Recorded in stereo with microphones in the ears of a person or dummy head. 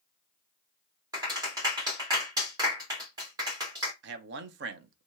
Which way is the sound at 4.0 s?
65° right (ahead or behind).